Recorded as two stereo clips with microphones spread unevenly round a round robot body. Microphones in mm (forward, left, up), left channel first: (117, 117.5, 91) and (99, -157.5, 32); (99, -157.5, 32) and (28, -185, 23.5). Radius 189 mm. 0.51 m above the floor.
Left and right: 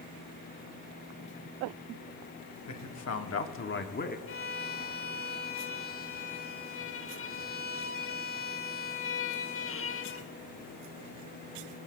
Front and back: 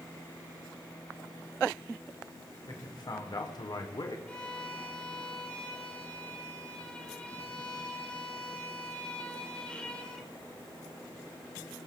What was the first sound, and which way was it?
A man speaking, 60° left.